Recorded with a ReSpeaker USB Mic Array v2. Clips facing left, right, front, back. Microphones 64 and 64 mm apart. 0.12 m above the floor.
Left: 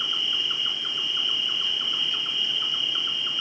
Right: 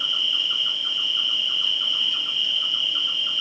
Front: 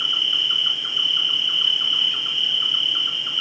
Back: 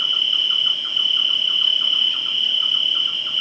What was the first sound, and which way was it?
An insect, 55° left.